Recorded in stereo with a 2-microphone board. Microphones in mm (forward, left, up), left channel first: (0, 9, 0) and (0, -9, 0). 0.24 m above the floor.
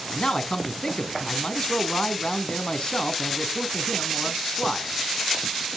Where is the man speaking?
50° left (ahead or behind), 2 m.